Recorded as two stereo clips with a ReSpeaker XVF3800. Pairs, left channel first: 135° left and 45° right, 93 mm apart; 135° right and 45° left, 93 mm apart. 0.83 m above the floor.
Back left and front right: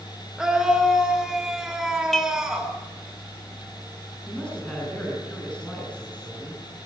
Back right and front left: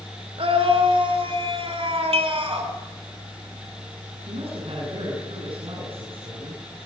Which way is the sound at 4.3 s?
60° left.